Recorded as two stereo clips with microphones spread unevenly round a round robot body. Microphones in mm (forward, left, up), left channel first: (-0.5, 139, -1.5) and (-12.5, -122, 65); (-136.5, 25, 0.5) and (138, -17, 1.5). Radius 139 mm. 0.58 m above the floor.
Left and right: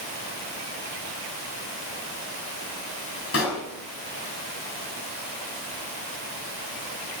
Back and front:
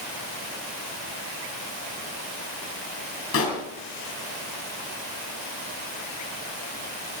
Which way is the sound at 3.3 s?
125° left.